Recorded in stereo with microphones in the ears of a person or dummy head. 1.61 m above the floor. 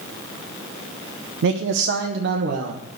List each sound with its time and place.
1.4 s a man speaking: 65° right (ahead or behind), 0.7 m; by 2.8 s 55° right (ahead or behind), 1.4 m